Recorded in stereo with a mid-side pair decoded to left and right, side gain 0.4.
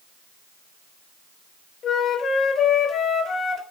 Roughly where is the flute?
Ahead left.